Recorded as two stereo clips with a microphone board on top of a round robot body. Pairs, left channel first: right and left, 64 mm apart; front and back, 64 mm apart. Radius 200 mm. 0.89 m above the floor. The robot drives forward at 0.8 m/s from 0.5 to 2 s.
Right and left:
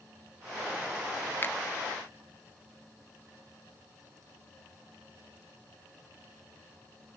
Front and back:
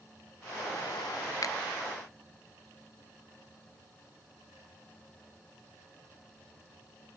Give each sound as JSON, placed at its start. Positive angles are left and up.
{"t": 1.4, "sound": "a finger snap", "azimuth_deg": -30, "distance_m": 1.3}